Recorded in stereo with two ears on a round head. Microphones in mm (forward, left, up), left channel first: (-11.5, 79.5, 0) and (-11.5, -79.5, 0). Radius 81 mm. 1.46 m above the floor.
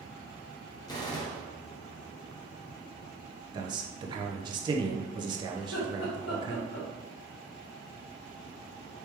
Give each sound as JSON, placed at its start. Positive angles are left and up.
{"t": 0.9, "sound": "a gunshot", "side_deg": 20, "distance_m": 0.9}
{"t": 3.5, "sound": "a man speaking", "side_deg": -25, "distance_m": 0.6}
{"t": 5.6, "sound": "laughter", "side_deg": 70, "distance_m": 1.8}